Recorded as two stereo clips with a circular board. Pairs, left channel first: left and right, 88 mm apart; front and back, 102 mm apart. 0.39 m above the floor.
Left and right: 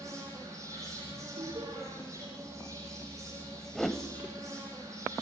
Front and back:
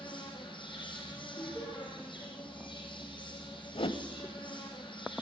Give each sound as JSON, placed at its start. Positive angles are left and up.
{"t": 0.0, "sound": "an insect", "azimuth_deg": -35, "distance_m": 7.5}
{"t": 1.4, "sound": "laughter", "azimuth_deg": -55, "distance_m": 4.0}
{"t": 3.8, "sound": "a whoosh", "azimuth_deg": 0, "distance_m": 0.9}